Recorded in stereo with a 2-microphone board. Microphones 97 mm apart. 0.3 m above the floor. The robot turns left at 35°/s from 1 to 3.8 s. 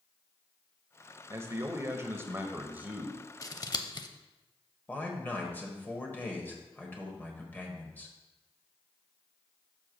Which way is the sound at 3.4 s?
35° left (ahead or behind).